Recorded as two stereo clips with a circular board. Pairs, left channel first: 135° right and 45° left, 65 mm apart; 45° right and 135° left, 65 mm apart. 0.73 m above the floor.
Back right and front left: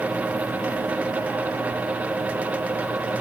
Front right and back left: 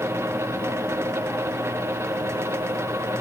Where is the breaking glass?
I don't hear breaking glass.